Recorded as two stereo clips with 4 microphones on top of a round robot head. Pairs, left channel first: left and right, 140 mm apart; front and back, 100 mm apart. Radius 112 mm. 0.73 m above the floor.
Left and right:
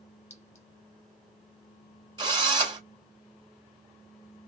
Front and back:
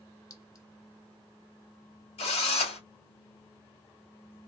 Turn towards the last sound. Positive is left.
turn(degrees=-30)